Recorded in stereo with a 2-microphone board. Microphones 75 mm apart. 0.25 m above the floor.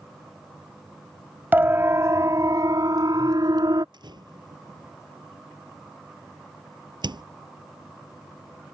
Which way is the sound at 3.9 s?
80° right.